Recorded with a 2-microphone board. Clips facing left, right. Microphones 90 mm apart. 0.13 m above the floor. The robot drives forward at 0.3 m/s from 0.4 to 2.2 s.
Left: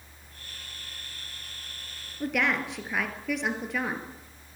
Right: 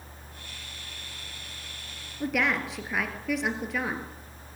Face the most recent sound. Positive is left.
turn(degrees=0)  # may be behind; listen again after turning